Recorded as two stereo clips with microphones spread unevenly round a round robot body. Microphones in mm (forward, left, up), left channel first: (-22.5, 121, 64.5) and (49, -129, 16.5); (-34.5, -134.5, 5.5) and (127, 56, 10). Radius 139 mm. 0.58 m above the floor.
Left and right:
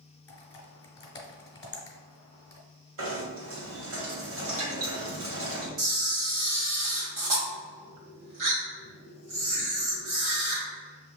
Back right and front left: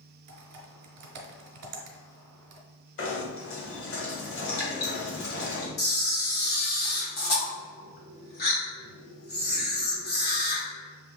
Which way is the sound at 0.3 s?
35° left.